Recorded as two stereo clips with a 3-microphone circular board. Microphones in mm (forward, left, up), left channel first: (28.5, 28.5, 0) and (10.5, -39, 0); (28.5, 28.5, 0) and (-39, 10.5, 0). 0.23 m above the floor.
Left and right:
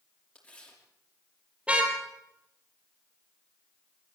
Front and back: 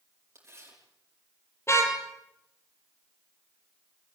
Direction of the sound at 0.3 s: 150° left.